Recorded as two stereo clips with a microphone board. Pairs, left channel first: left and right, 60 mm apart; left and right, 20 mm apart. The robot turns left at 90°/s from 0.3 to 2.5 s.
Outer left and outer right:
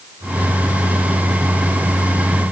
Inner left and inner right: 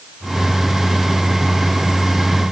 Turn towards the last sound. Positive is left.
No sound to turn to.